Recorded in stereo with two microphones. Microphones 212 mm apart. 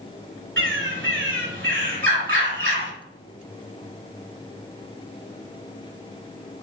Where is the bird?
65° right (ahead or behind), 2.5 m.